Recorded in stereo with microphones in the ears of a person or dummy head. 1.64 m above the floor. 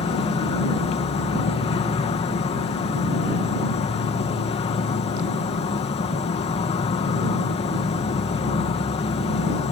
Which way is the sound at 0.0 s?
35° left (ahead or behind).